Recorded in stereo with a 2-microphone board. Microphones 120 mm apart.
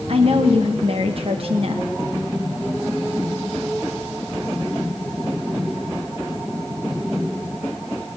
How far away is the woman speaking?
About 1.0 m.